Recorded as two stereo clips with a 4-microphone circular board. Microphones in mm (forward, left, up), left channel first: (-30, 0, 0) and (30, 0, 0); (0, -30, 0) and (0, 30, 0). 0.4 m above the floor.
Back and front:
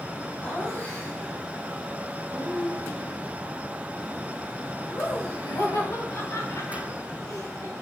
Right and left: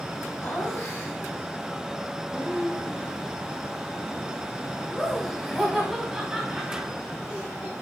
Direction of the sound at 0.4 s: 130° right.